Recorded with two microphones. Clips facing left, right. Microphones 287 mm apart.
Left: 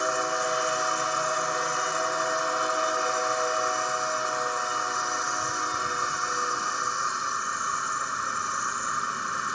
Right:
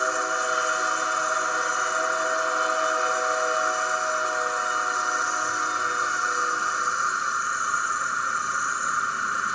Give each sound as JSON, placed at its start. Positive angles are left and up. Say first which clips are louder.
{"t": 0.0, "sound": "an insect", "louder": "even", "side_deg": 50, "distance_m": 0.8}